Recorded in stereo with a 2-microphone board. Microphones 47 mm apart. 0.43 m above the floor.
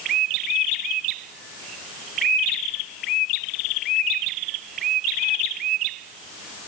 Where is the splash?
No splash in this recording.